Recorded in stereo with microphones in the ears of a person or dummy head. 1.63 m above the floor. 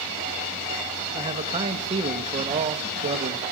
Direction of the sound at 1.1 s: 30° right (ahead or behind).